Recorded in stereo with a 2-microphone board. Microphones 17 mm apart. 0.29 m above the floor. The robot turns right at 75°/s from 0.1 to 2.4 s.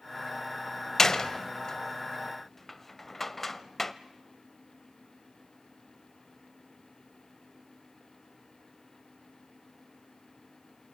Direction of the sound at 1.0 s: 30° left (ahead or behind).